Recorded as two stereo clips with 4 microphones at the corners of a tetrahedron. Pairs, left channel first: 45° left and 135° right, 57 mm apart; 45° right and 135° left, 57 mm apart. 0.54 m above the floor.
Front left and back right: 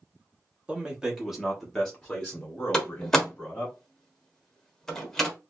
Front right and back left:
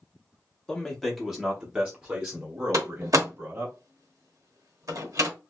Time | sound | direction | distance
0.7 | a man speaking | 105° right | 1.2 m
2.7 | a door slam | 125° left | 1.1 m